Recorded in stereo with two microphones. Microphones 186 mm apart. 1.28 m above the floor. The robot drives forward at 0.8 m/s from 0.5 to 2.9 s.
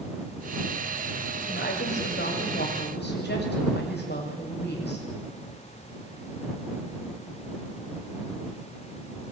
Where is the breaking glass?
I don't hear breaking glass.